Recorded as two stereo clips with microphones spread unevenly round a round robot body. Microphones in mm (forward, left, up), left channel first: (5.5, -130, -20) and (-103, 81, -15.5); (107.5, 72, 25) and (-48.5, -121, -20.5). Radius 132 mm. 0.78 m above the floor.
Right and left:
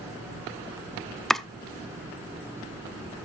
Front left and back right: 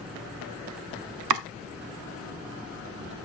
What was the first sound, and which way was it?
Chopping, 150° right.